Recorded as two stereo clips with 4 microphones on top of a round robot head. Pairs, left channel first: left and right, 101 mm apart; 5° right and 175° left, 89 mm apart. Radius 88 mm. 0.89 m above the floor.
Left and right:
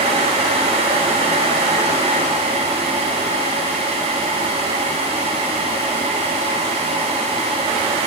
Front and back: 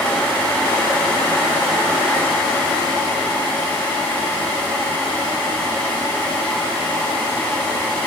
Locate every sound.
Only background noise.